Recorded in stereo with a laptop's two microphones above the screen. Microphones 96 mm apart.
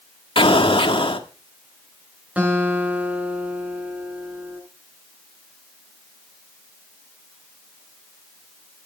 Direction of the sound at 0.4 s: 70° left (ahead or behind).